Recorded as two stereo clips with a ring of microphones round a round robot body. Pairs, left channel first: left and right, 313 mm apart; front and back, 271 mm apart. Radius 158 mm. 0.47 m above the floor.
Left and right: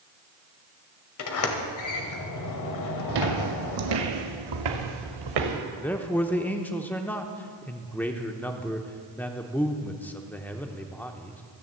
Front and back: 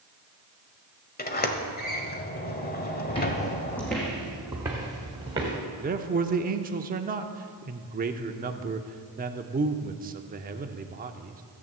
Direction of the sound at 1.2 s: 60° left.